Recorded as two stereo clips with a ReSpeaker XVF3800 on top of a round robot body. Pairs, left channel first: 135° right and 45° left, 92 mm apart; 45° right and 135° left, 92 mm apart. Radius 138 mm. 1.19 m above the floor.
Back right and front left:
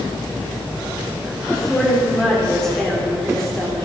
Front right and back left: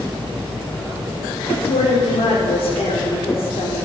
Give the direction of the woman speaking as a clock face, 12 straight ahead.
2 o'clock.